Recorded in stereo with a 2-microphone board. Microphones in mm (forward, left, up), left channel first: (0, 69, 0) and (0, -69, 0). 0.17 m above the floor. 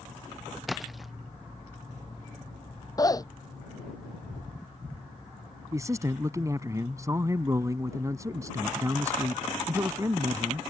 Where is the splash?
Centre (ahead or behind).